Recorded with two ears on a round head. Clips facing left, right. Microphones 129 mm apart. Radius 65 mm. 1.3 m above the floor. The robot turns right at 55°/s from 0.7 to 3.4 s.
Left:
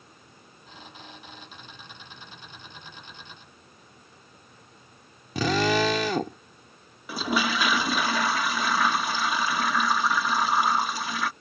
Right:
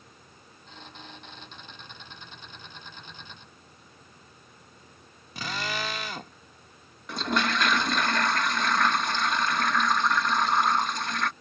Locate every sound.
5.3 s a drill: 65° left (ahead or behind)
7.1 s a toilet flushing: 5° left (ahead or behind)